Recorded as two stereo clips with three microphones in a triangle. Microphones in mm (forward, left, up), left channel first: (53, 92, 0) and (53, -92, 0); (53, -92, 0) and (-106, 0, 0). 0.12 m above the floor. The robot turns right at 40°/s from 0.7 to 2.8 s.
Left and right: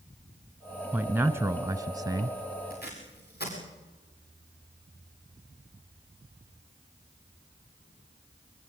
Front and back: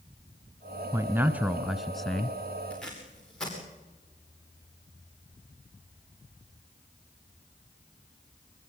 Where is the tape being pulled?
55° left, 8 m.